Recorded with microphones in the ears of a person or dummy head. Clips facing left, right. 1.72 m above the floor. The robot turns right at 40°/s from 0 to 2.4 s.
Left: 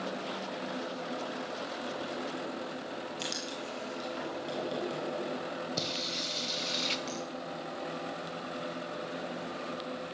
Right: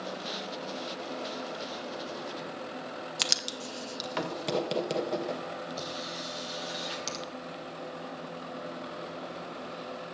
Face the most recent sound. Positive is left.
turn(degrees=-60)  # may be behind; listen again after turning